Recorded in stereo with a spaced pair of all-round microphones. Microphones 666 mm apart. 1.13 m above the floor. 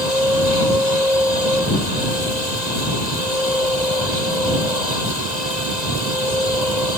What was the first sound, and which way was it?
A machine running, 85° right.